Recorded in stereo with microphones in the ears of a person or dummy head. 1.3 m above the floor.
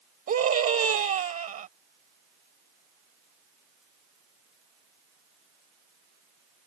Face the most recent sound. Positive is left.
turn(degrees=-35)  # may be behind; listen again after turning